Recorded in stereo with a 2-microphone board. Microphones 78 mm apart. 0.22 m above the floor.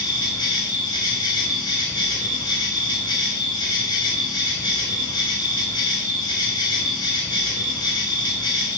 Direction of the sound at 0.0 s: 75° left (ahead or behind).